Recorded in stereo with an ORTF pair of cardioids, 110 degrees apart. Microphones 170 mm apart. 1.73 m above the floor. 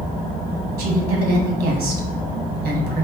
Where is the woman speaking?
65° right, 1.8 m.